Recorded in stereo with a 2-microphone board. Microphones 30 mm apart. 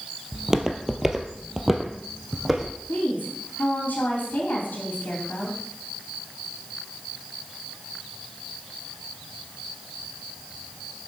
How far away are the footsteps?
About 1.6 m.